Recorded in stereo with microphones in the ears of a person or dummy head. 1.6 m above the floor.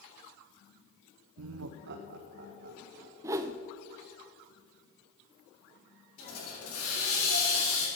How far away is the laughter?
About 0.5 m.